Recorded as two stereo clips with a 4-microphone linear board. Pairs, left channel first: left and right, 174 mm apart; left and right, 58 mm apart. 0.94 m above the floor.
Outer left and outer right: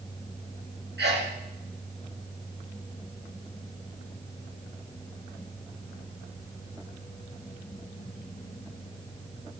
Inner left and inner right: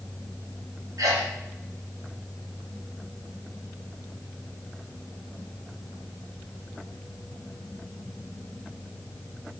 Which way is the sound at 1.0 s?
80° right.